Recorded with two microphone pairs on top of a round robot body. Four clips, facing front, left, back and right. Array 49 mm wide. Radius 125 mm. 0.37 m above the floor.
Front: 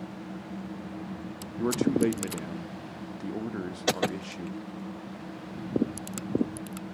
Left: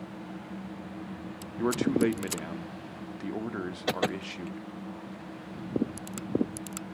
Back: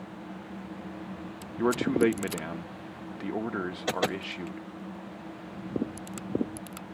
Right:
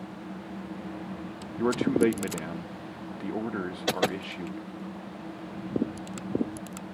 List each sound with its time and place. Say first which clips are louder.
1.6 s a man speaking: right 2 dB, back 1 dB; straight behind, 0.8 m